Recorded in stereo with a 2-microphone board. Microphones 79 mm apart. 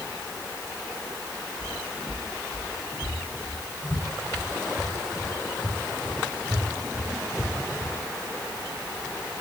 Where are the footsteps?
Centre (ahead or behind), 1.5 m; by 7.9 s 50° left (ahead or behind), 4 m.